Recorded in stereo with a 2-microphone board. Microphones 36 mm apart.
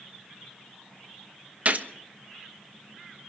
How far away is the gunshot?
About 1.1 m.